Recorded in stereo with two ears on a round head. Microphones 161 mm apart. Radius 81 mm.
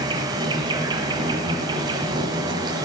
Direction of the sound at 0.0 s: 25° right (ahead or behind).